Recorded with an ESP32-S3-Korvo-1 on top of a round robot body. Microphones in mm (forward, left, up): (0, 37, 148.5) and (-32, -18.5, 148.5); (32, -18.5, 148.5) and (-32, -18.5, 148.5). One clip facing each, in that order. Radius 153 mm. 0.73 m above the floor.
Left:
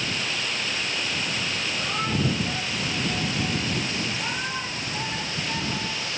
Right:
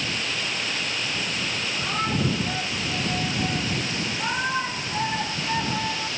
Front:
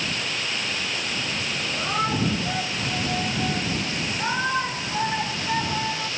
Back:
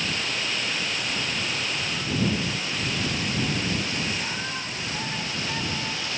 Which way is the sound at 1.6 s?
35° right.